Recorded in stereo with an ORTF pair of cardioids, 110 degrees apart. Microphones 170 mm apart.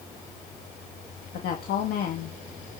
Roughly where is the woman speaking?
Ahead left.